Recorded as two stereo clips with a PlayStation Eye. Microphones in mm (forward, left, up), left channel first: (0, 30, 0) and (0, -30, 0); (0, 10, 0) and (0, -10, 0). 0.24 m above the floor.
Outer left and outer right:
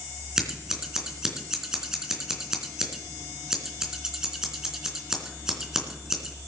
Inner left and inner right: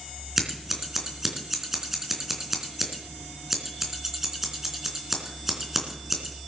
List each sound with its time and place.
0.4 s scissors: 10° right (ahead or behind), 3 m